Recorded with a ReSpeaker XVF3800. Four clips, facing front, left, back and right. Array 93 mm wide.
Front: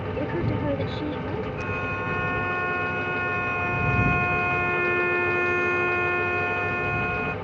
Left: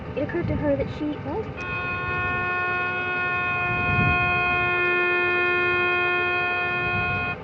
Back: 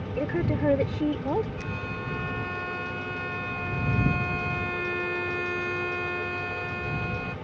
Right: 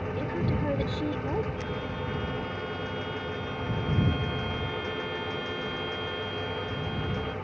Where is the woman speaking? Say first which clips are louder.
Left 7 dB, back 1 dB; 105° left; by 1.5 s 160° left.